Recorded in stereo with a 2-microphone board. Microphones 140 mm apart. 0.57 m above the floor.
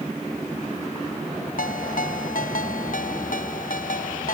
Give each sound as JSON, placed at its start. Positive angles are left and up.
{"t": 1.6, "sound": "a ringtone", "side_deg": 80}